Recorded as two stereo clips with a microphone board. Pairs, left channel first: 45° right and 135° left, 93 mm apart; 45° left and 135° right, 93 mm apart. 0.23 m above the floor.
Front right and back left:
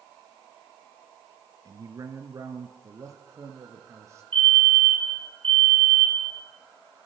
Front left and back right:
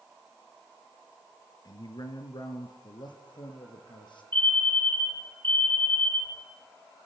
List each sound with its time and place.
1.6 s a man speaking: 85° left, 3 m; by 4.2 s 80° left, 4.5 m
4.3 s a fire alarm: 115° left, 7.5 m